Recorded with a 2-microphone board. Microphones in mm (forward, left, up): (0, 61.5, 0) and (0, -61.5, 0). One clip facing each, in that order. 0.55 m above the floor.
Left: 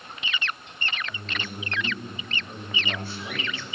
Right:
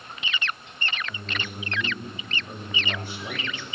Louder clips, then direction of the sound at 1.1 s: Right 1 dB; 20° right (ahead or behind).